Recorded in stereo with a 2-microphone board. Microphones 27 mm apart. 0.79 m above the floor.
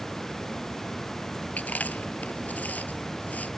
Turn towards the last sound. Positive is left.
turn(degrees=80)